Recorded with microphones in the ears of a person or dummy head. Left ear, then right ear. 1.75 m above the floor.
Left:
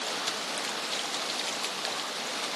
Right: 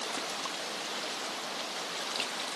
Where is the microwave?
No microwave in this recording.